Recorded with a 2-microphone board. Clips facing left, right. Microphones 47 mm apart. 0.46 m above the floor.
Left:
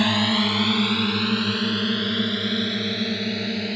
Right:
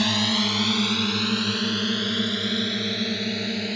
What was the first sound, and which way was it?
A drone, 15° left (ahead or behind).